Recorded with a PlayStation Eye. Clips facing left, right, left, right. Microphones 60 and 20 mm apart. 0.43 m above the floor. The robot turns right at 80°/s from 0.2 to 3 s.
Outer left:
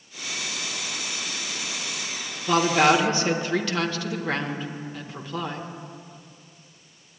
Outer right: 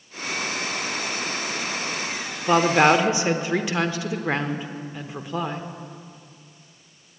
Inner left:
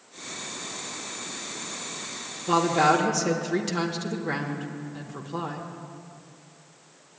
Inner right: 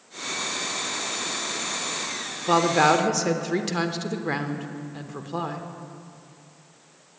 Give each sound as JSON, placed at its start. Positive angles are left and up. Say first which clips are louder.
{"t": 2.5, "sound": "a woman speaking", "louder": "outer right 2 dB, inner right 2 dB", "side_deg": -25, "distance_m": 0.8}